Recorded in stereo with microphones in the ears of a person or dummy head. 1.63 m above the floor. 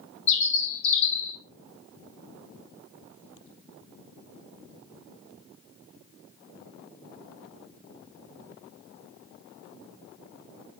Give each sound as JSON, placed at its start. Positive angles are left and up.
{"t": 0.3, "sound": "a bird", "side_deg": 30, "distance_m": 1.1}